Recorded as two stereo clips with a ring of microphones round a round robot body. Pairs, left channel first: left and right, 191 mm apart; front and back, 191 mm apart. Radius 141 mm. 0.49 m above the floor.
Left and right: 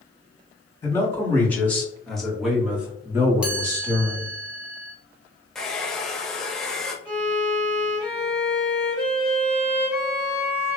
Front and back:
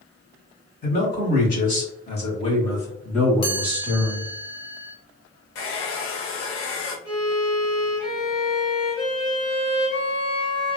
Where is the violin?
15° left, 1.7 m.